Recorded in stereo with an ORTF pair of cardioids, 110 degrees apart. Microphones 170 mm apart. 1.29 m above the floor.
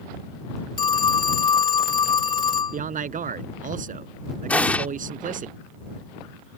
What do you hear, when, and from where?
0.8 s a phone ringing: 25° left
2.7 s a man speaking: 45° right
4.5 s an explosion: 5° left